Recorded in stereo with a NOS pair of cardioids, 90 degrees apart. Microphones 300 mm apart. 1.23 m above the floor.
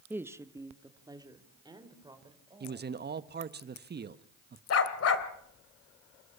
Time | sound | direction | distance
0.1 | a woman speaking | 5° right | 1.1 m
2.6 | a man speaking | 35° right | 1.3 m
4.7 | a dog barking | 55° left | 2.5 m